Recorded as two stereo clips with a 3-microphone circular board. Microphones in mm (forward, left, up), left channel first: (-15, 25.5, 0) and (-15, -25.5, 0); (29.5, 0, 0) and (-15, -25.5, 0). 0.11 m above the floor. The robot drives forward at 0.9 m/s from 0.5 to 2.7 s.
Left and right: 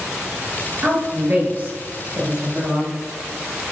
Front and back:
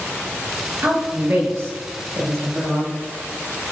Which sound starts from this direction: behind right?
A woman speaking, at 0.8 s.